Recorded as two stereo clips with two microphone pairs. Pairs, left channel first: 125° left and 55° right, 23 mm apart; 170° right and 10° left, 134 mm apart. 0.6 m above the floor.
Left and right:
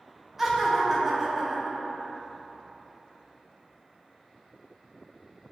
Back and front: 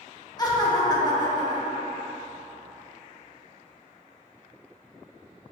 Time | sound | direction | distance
0.4 | laughter | 125° right | 0.7 m